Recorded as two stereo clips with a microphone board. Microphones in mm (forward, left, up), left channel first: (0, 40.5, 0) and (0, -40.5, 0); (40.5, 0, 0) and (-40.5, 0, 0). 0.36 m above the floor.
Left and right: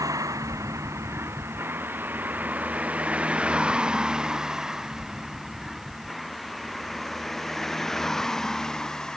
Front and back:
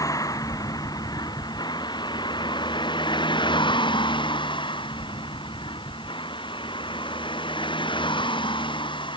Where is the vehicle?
45° right; by 9.2 s 5° left.